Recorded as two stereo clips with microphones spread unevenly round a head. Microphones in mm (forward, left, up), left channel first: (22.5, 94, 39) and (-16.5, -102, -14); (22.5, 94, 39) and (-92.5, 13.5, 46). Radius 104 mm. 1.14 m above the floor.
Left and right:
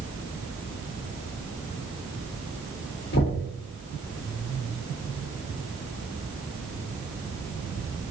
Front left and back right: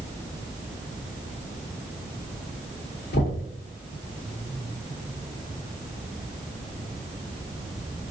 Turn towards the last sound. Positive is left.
turn(degrees=40)